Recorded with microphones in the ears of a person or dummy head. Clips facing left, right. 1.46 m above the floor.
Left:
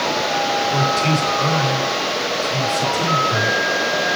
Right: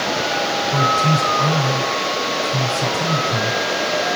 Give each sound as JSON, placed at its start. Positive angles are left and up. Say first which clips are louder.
{"t": 0.7, "sound": "a man speaking", "louder": "even", "side_deg": 30, "distance_m": 7.0}